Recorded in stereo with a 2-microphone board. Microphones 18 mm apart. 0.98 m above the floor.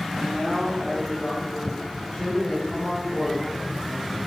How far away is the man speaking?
About 3 m.